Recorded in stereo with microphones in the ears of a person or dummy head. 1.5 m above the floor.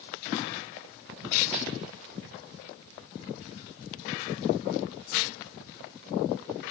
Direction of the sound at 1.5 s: 10° right (ahead or behind).